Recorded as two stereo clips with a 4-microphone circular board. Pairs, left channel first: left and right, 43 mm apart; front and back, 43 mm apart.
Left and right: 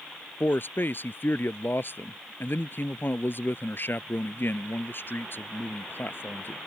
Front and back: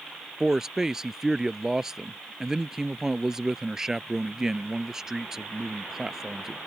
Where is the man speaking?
105° left.